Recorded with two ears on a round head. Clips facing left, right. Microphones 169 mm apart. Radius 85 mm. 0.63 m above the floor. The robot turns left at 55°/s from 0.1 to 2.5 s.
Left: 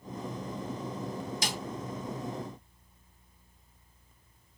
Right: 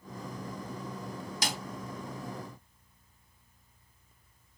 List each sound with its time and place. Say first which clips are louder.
1.4 s a snare drum: right 4 dB; 55° right (ahead or behind), 0.9 m; by 1.6 s 50° right (ahead or behind), 0.9 m